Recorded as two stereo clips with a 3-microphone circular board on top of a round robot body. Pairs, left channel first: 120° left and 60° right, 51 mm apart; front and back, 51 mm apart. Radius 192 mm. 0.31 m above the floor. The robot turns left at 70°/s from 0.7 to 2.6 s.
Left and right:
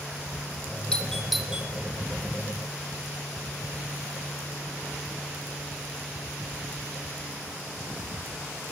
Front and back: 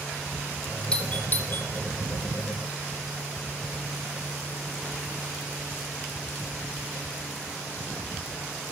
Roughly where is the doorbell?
Ahead left.